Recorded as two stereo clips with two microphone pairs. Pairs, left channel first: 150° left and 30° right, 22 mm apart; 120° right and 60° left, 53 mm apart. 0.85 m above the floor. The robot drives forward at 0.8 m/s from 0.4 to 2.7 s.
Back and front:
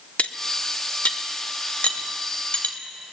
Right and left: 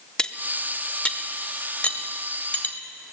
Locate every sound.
0.2 s cutlery clinking: 165° left, 0.8 m; by 3.1 s 175° left, 2.5 m